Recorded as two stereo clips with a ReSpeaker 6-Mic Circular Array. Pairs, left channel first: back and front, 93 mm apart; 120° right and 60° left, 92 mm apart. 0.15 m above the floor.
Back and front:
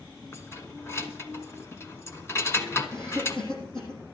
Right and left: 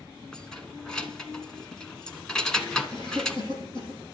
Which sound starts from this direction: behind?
Keys jangling, at 0.3 s.